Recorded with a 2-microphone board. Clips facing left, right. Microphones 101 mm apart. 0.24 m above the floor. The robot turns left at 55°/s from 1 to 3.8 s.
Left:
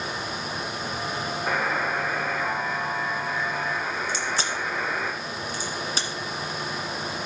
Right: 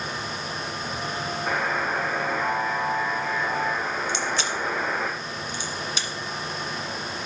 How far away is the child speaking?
No child speaking in this recording.